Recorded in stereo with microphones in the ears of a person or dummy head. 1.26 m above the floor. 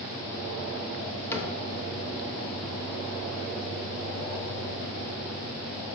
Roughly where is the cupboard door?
Centre.